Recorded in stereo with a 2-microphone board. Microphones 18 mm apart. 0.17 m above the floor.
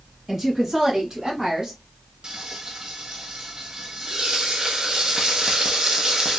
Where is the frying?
50° right (ahead or behind), 0.9 m.